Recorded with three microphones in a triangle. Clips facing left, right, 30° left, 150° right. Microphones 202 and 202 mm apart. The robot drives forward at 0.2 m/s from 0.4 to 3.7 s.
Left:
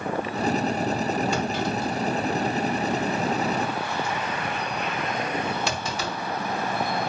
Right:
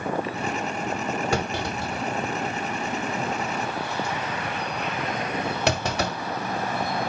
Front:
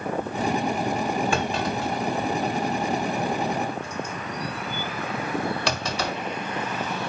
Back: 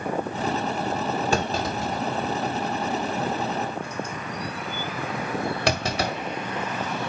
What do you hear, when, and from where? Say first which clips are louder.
1.3 s a clunk: left 1 dB, even; 100° right, 1.6 m; by 6.2 s 115° right, 1.8 m